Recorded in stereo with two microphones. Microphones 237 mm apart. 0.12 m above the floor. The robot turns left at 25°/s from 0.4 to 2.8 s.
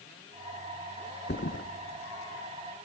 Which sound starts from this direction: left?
A thud, at 1.3 s.